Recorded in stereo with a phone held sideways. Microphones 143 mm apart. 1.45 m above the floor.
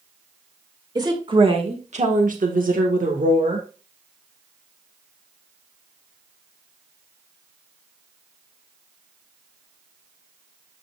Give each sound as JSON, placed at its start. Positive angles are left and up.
{"t": 0.9, "sound": "a woman speaking", "side_deg": -30, "distance_m": 2.5}